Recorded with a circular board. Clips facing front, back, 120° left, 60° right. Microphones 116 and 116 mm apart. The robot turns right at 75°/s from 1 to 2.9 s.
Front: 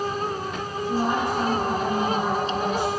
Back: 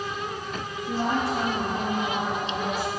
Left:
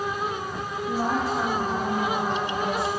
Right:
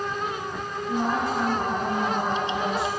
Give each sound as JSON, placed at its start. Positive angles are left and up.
{"t": 0.9, "sound": "a woman speaking", "azimuth_deg": 155, "distance_m": 5.0}